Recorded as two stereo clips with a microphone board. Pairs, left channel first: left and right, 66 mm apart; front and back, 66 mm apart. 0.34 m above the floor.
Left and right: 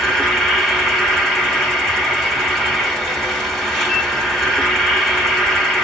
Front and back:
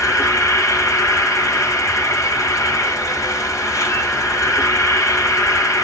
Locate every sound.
0.0 s an insect: 5° left, 1.5 m